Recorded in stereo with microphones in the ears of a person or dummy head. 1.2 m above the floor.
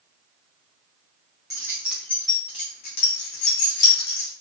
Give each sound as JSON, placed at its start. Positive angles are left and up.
{"t": 1.5, "sound": "keys jangling", "side_deg": -25, "distance_m": 0.7}